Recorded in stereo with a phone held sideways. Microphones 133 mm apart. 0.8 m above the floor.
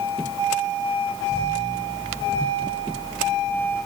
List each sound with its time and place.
Only background noise.